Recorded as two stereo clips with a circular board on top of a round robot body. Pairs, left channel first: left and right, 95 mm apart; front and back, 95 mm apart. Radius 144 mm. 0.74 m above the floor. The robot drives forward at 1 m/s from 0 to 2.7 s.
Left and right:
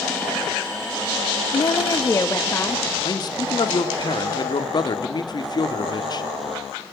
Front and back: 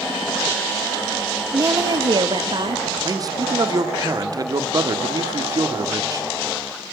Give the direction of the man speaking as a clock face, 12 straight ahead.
8 o'clock.